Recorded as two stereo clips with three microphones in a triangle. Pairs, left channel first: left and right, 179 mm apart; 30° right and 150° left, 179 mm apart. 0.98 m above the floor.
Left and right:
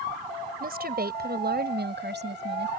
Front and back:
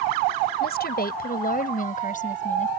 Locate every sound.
0.6 s a woman speaking: 55° right; by 2.7 s 75° right